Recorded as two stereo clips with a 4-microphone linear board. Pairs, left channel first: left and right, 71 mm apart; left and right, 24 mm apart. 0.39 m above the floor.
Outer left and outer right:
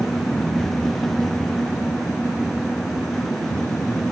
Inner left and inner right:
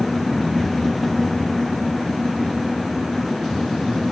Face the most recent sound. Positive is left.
No sound to turn to.